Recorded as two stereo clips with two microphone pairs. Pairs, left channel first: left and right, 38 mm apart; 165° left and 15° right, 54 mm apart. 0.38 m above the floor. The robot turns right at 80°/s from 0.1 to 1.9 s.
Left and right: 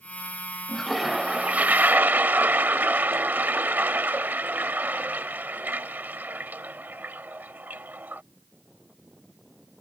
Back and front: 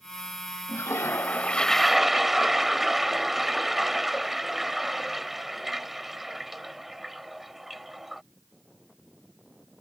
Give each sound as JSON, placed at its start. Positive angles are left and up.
{"t": 0.7, "sound": "a toilet flushing", "azimuth_deg": 165}